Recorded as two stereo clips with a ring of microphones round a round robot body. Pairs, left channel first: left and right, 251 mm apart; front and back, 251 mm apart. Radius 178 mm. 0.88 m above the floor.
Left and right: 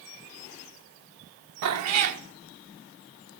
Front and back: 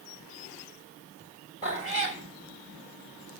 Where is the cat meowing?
75° right, 1.0 m.